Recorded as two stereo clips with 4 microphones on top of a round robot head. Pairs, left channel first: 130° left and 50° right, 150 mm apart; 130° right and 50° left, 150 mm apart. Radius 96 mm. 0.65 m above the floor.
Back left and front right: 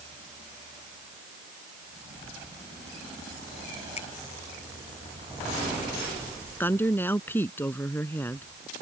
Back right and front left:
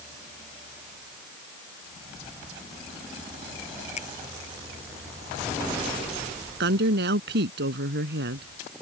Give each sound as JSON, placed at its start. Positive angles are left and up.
{"t": 4.0, "sound": "a finger snap", "azimuth_deg": 180}
{"t": 6.6, "sound": "a woman speaking", "azimuth_deg": 55}